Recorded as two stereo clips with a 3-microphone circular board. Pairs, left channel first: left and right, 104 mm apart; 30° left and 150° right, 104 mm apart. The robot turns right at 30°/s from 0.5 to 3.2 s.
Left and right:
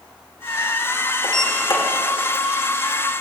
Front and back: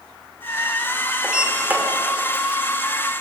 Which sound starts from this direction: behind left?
A sliding door, at 1.2 s.